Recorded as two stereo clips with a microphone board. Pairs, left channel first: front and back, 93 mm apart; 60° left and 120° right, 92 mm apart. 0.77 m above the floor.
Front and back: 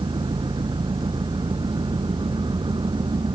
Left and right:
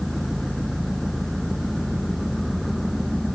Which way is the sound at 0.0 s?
150° left.